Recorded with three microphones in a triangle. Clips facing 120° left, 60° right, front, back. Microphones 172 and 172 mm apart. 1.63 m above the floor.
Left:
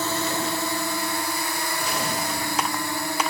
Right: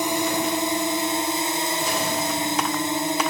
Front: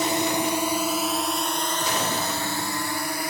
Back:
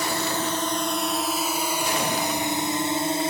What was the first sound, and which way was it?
A drone, 20° right.